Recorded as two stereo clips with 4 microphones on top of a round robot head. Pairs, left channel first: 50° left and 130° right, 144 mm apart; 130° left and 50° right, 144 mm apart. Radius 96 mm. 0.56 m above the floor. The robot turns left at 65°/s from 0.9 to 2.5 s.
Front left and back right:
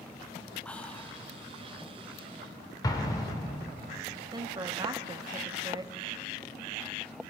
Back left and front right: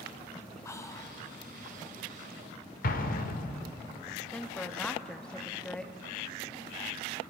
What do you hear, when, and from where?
0.7 s whispering: 115° left, 0.7 m; by 1.2 s 95° left, 0.7 m
2.8 s an explosion: 115° left, 1.1 m
4.3 s a woman speaking: 150° right, 0.7 m